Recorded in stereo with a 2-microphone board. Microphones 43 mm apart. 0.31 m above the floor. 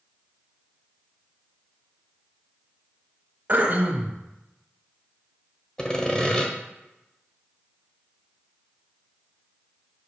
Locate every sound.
3.5 s throat clearing: 40° right (ahead or behind), 1.1 m
5.8 s sawing: 20° left (ahead or behind), 1.0 m